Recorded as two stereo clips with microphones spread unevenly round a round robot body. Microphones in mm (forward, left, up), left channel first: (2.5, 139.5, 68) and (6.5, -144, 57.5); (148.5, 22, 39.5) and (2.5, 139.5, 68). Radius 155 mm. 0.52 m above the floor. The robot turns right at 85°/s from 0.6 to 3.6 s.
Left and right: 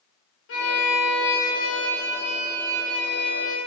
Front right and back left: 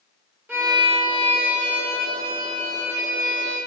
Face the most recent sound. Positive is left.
turn(degrees=-50)